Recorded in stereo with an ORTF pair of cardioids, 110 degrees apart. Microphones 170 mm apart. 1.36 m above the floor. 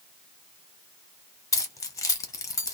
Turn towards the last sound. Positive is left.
turn(degrees=20)